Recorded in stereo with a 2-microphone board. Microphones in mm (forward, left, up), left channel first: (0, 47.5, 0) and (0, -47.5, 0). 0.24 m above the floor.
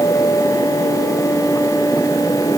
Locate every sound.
Only background noise.